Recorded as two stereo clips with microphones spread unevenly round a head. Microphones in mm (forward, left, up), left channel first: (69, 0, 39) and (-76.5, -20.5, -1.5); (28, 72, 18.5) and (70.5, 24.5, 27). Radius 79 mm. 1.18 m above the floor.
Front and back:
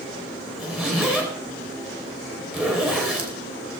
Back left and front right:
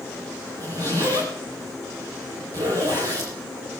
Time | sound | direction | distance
0.6 | a zipper | 90° right | 3.5 m